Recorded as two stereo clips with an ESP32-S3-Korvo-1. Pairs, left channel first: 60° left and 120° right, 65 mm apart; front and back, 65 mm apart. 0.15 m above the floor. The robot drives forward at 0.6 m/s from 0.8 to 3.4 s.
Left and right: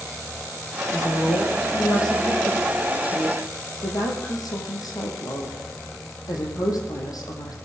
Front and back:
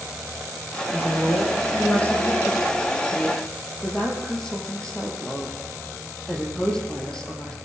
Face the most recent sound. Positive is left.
turn(degrees=75)